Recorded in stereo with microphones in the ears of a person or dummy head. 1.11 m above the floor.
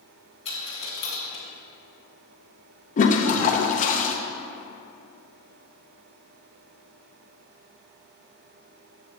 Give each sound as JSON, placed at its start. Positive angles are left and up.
{"t": 0.5, "sound": "a dropped coin", "side_deg": 40, "distance_m": 2.0}
{"t": 3.0, "sound": "a toilet flushing", "side_deg": 45, "distance_m": 0.6}